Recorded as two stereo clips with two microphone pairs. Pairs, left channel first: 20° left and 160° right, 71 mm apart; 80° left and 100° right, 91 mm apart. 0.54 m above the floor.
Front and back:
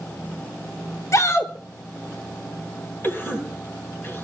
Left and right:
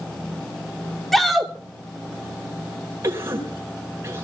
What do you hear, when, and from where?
1.1 s a shout: 10° right, 1.1 m
3.0 s a cough: 40° right, 4.5 m